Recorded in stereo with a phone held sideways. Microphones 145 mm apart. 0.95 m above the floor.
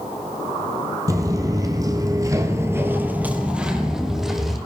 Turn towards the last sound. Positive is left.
turn(degrees=0)  # may be behind; listen again after turning